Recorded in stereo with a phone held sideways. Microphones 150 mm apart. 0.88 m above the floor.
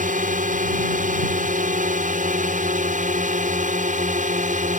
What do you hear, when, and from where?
0.0 s a drone: 60° right (ahead or behind)